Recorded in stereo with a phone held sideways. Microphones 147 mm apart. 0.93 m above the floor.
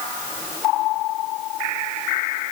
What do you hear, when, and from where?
Only background noise.